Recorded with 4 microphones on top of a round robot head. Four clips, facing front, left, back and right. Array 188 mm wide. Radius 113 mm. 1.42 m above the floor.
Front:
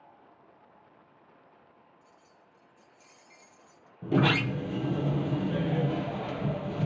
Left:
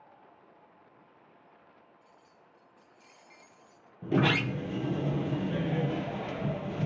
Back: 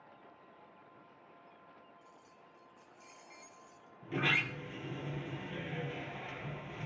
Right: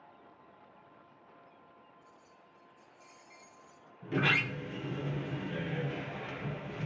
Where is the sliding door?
40° left, 0.8 m.